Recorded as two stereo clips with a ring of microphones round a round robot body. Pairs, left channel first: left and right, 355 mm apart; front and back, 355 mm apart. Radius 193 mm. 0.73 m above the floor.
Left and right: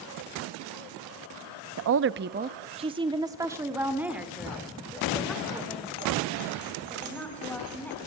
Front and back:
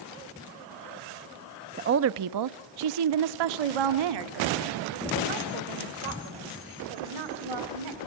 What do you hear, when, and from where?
1.8 s a woman speaking: 120° right, 0.5 m; by 8.1 s 175° left, 4 m